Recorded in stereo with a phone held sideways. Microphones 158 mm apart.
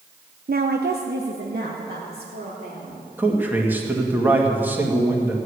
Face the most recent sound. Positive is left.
turn(degrees=-10)  # may be behind; listen again after turning